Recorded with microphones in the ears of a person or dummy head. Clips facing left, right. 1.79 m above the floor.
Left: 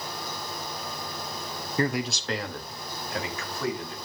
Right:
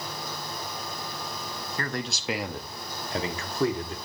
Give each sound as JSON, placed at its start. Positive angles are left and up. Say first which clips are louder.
{"t": 1.8, "sound": "a man speaking", "louder": "left 7 dB", "side_deg": 20, "distance_m": 0.6}